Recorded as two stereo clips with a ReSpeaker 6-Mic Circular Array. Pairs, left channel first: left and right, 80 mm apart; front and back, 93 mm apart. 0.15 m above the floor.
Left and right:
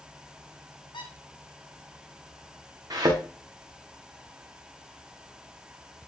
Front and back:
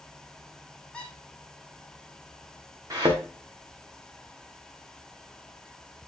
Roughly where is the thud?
Behind right.